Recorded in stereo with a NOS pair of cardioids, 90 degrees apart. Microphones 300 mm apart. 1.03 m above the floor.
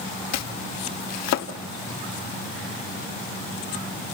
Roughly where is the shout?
No shout in this recording.